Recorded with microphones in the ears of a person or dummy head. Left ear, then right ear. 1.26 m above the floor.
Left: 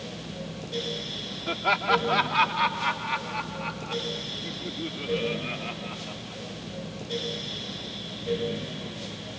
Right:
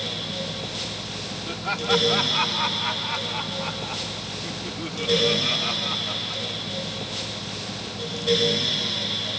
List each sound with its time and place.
1.5 s laughter: 20° left (ahead or behind); by 6.6 s 65° right (ahead or behind)